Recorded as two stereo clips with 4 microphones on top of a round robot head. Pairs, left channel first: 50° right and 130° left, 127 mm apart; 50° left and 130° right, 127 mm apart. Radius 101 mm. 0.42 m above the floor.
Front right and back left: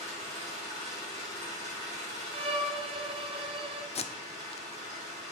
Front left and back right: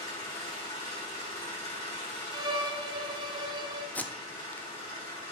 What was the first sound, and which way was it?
An engine running, 110° left.